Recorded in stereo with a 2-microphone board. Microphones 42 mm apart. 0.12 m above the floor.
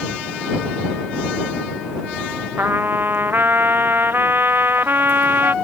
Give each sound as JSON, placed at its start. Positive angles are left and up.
{"t": 2.6, "sound": "a trumpet", "side_deg": -55}